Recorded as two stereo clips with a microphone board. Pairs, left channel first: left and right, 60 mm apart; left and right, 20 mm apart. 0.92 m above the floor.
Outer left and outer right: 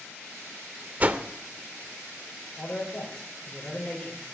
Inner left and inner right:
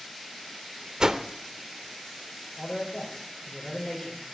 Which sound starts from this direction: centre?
A man speaking, at 2.6 s.